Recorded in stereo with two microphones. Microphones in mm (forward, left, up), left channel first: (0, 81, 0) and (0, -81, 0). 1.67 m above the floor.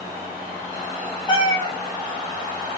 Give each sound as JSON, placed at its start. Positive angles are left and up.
{"t": 1.3, "sound": "a cat meowing", "side_deg": 30, "distance_m": 1.0}